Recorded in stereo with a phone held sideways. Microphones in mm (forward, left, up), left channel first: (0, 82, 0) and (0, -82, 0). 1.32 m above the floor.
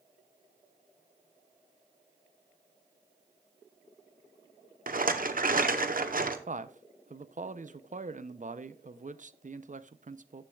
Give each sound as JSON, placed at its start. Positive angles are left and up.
{"t": 4.9, "sound": "a rattle", "side_deg": -60, "distance_m": 0.8}
{"t": 6.5, "sound": "a man speaking", "side_deg": -50, "distance_m": 0.5}